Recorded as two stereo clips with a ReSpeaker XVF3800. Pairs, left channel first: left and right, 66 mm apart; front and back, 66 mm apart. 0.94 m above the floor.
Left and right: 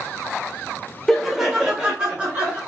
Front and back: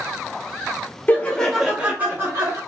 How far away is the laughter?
About 0.8 m.